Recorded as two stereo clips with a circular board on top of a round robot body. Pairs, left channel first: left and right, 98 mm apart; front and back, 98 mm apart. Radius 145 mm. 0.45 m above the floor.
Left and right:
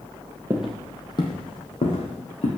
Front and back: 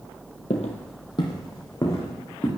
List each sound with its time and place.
0.5 s footsteps: 25° right, 0.6 m; by 2.5 s 65° left, 1.9 m